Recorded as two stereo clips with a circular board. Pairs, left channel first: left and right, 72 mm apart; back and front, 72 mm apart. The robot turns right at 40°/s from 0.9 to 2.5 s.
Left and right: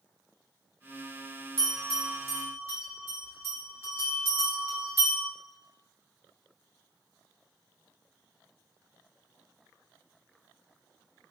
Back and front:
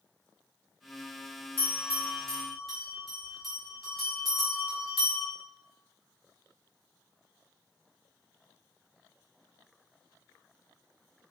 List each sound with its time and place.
1.6 s a bell: 125° right, 1.4 m; by 5.3 s 90° right, 1.4 m